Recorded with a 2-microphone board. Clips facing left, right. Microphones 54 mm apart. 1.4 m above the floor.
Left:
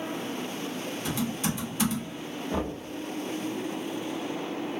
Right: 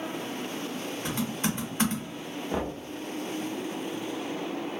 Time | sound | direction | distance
1.1 | typing on a keyboard | 40° right (ahead or behind) | 1.0 m
2.5 | knocking | 20° right (ahead or behind) | 1.1 m